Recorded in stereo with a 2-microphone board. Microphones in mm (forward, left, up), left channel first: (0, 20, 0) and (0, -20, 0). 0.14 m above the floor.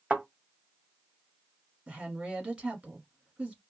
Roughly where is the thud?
Right.